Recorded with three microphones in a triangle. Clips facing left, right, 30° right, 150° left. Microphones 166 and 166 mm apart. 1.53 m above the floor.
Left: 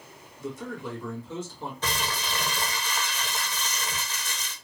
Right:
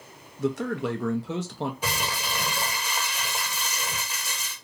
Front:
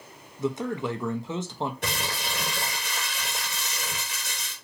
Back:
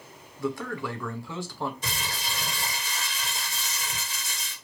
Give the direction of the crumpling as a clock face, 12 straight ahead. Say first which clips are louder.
Right 1 dB, front 3 dB; 12 o'clock.